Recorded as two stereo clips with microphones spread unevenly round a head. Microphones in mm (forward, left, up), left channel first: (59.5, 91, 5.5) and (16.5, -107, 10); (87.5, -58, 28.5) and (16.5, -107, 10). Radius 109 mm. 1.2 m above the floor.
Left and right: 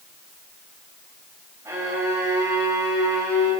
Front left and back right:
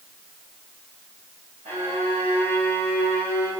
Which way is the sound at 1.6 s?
Straight behind.